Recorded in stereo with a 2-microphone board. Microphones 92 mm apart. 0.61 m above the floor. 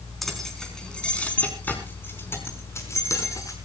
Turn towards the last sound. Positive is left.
turn(degrees=35)  # may be behind; listen again after turning